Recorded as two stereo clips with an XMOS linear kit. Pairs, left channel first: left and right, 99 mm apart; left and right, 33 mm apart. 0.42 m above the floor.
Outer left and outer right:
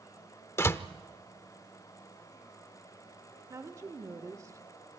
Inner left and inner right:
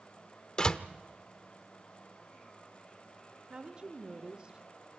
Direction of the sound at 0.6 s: 25° left (ahead or behind).